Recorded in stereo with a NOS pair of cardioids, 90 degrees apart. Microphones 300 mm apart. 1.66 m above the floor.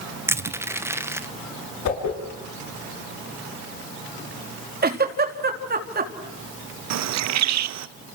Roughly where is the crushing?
Ahead.